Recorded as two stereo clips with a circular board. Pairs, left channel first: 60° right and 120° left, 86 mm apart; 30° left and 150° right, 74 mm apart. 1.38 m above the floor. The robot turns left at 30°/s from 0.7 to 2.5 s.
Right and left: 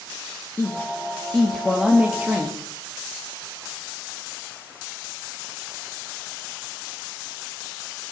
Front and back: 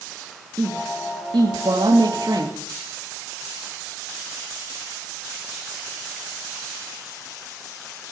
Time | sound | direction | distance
0.6 | a woman speaking | 120° right | 3 m